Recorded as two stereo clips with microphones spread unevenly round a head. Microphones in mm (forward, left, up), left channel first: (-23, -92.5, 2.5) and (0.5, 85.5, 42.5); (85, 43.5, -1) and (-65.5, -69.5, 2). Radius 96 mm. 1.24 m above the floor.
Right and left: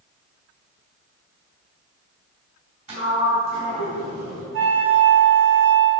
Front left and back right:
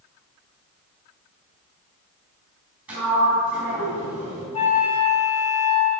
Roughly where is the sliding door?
Behind left.